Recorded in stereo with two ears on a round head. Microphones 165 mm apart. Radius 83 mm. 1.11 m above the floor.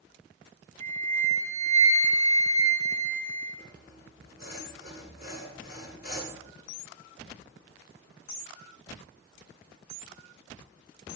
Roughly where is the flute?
Left.